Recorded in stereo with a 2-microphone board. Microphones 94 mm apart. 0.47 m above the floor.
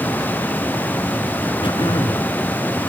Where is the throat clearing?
70° left (ahead or behind), 3.5 m.